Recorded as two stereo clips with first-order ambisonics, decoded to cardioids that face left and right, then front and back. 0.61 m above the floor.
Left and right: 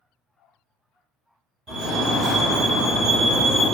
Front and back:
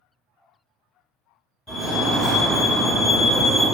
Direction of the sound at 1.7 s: 75° right.